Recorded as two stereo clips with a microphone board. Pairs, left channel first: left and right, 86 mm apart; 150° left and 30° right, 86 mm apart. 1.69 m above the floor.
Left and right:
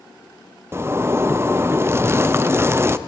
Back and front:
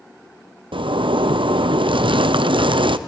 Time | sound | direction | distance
0.7 | a zipper | 30° right | 0.6 m